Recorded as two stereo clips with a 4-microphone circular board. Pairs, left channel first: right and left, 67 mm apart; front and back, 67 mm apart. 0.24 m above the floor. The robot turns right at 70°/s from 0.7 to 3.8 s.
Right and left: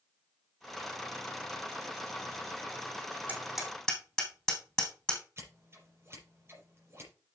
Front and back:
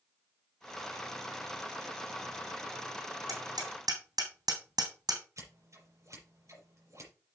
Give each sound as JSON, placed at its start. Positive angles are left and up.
{"t": 3.3, "sound": "hammering", "azimuth_deg": 155, "distance_m": 3.5}
{"t": 5.4, "sound": "scissors", "azimuth_deg": 140, "distance_m": 6.0}